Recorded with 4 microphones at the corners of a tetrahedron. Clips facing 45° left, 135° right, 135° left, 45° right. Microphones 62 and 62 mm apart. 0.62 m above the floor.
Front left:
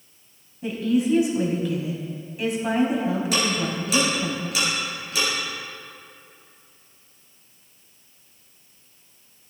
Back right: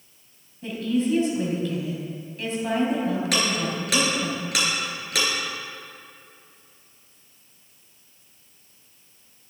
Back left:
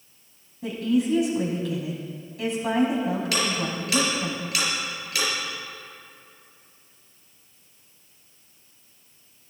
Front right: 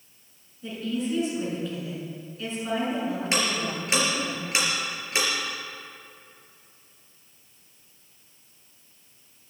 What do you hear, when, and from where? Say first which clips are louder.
0.6 s a woman speaking: front left 2 dB, back left 6 dB; 120° left, 3.5 m
3.3 s ticking: front left 1 dB, back left 1 dB; 110° right, 4.5 m